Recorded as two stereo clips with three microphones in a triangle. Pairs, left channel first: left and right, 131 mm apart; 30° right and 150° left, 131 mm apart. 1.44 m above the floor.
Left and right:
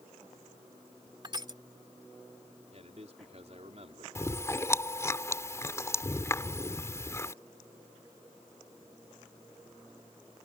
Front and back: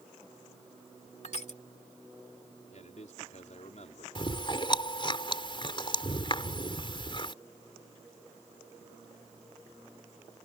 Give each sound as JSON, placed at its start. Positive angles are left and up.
{"t": 1.2, "sound": "crushing", "azimuth_deg": -40}
{"t": 2.7, "sound": "a man speaking", "azimuth_deg": -55}
{"t": 4.2, "sound": "chewing", "azimuth_deg": 20}